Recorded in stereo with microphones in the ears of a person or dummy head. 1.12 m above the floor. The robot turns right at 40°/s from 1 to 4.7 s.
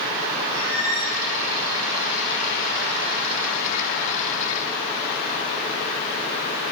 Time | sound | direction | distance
0.5 | a squeak | 85° right | 3.5 m